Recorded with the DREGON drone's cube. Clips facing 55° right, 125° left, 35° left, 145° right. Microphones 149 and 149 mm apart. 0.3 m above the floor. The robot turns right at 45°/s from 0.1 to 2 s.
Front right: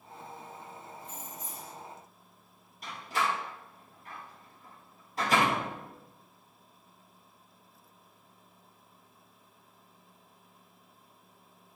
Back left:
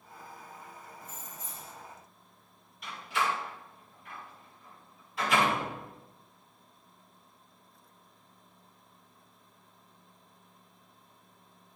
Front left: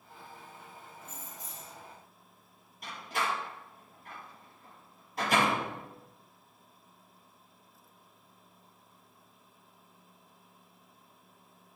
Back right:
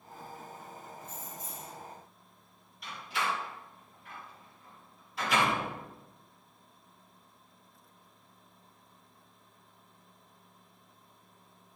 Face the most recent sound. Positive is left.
turn(degrees=-10)